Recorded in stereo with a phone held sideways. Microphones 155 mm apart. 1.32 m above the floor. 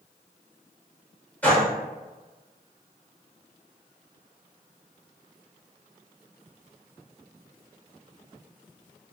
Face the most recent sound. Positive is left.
turn(degrees=10)  # may be behind; listen again after turning